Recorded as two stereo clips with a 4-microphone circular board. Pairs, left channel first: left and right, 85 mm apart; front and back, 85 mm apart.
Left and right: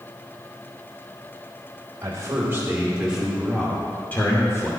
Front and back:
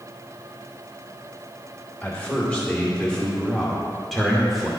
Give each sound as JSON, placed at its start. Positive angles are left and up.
{"t": 2.0, "sound": "a man speaking", "azimuth_deg": -65, "distance_m": 1.3}